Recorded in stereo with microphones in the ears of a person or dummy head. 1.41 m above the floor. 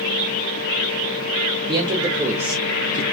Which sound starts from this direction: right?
A man speaking, at 1.7 s.